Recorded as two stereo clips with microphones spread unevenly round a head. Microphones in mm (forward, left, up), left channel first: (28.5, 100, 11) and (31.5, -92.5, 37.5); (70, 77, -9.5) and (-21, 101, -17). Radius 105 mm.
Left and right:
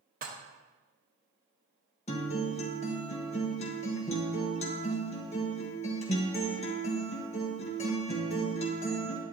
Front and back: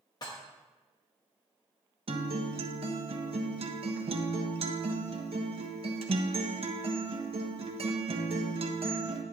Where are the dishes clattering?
60° right, 1.1 m.